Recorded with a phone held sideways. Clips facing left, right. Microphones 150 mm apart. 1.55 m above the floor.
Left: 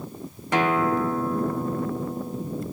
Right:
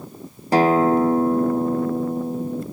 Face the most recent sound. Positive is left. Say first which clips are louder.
# right 6 dB
turn(degrees=-35)  # may be behind; listen again after turning